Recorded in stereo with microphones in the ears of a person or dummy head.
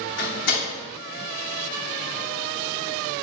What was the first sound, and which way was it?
A door slam, 60° left (ahead or behind).